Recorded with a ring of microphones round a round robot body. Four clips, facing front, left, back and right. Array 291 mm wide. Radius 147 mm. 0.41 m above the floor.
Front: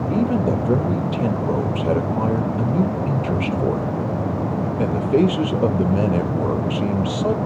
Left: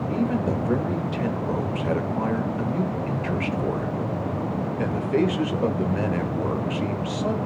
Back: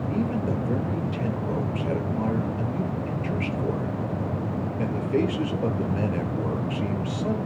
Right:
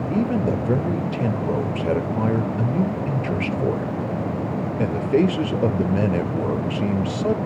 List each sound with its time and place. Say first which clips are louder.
0.1 s a man speaking: right 3 dB, front 7 dB; 35° right, 1.3 m